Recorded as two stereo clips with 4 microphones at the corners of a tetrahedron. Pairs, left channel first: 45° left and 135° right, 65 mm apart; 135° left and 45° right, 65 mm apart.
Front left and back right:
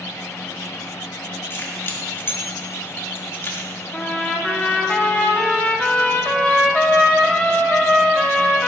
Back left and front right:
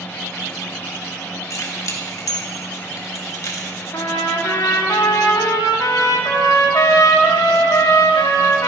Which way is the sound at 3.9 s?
115° left.